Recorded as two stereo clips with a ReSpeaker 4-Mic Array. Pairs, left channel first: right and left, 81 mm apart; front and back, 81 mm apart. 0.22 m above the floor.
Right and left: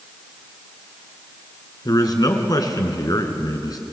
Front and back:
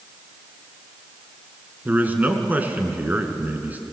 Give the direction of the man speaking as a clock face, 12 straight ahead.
4 o'clock.